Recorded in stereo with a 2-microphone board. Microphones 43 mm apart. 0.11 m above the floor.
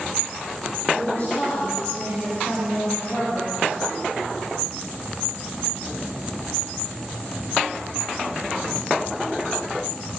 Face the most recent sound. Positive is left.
turn(degrees=0)  # may be behind; listen again after turning